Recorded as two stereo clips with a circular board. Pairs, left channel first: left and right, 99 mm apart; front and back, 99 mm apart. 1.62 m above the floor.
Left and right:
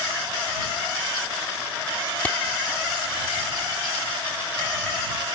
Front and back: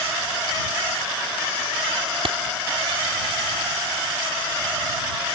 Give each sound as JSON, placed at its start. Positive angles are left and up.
{"t": 2.2, "sound": "a clap", "azimuth_deg": 165}